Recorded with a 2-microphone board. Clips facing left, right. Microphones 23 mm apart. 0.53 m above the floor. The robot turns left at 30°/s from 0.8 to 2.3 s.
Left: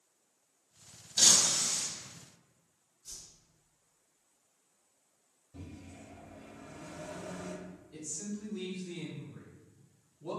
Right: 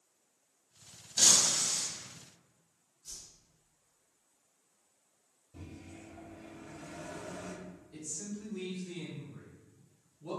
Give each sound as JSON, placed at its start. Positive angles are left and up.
{"t": 1.2, "sound": "breaking glass", "side_deg": 15, "distance_m": 1.2}
{"t": 3.0, "sound": "a whoosh", "side_deg": -25, "distance_m": 1.9}
{"t": 5.5, "sound": "a microwave", "side_deg": 5, "distance_m": 1.6}
{"t": 7.9, "sound": "a man speaking", "side_deg": 25, "distance_m": 1.3}